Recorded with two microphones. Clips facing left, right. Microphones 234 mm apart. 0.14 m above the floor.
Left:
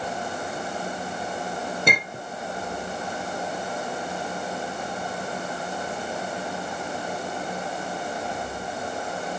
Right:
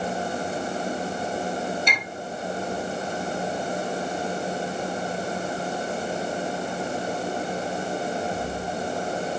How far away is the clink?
About 2 m.